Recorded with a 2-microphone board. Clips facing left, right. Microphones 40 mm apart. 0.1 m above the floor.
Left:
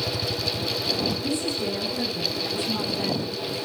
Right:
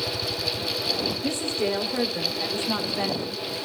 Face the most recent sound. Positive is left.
turn(degrees=-45)  # may be behind; listen again after turning